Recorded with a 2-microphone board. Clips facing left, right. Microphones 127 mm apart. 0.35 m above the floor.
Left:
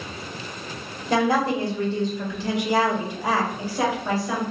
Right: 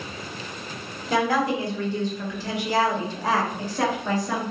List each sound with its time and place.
1.1 s a woman speaking: 30° left (ahead or behind), 1.6 m; by 4.4 s 5° left (ahead or behind), 2.0 m